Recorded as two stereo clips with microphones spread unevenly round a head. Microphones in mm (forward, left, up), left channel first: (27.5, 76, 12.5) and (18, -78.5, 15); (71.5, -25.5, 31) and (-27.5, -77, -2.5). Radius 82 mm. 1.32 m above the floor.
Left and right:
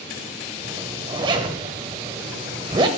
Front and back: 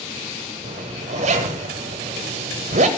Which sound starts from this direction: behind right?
A zipper, at 0.6 s.